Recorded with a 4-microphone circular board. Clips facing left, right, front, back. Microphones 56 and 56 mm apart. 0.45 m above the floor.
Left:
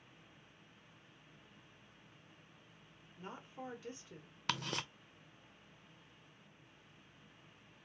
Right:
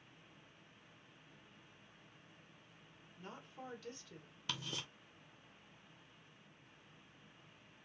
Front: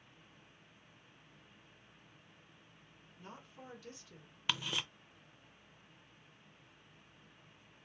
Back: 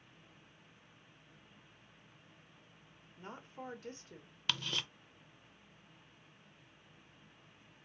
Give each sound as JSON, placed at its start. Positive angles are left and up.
{"t": 3.2, "sound": "a woman speaking", "azimuth_deg": 155, "distance_m": 1.6}
{"t": 4.5, "sound": "ticking", "azimuth_deg": 75, "distance_m": 0.5}